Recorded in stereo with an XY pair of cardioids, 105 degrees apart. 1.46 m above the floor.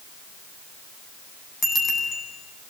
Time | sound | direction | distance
1.6 | a bicycle bell | 35° left | 9 m